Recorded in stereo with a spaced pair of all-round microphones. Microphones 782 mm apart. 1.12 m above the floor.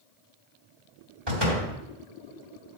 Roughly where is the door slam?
Right.